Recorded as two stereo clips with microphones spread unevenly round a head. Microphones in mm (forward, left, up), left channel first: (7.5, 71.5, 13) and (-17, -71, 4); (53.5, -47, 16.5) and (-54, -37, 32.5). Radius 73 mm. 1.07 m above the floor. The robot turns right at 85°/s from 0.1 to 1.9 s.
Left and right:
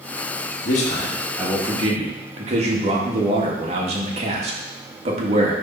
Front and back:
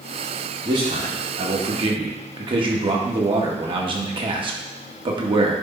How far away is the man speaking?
About 1.8 m.